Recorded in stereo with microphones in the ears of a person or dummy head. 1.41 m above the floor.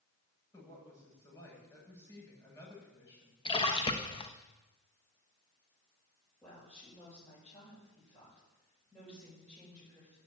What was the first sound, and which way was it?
A woman speaking, 20° left (ahead or behind).